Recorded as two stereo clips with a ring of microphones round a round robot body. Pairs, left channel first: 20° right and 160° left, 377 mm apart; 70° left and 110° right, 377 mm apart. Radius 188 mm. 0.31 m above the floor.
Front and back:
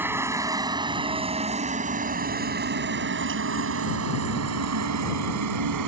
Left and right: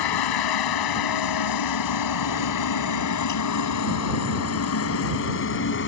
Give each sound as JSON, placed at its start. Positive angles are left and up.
{"t": 0.0, "sound": "a helicopter", "azimuth_deg": 75}